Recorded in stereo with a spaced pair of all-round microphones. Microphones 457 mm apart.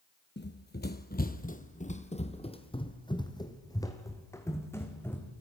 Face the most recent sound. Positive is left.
turn(degrees=5)  # may be behind; listen again after turning